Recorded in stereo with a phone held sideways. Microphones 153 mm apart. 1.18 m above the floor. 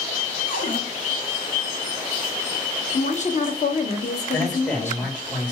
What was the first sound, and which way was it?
A cupboard door, 65° left (ahead or behind).